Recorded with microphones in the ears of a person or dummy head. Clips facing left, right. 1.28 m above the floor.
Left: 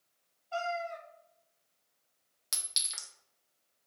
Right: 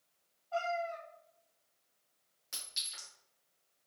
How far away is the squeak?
I don't hear a squeak.